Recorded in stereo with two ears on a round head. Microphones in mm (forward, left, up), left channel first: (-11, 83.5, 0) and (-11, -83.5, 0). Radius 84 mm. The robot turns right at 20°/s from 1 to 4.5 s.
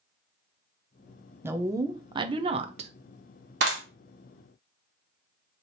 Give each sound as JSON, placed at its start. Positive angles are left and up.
{"t": 1.4, "sound": "a woman speaking", "side_deg": -15, "distance_m": 0.6}
{"t": 3.6, "sound": "a clap", "side_deg": -70, "distance_m": 1.4}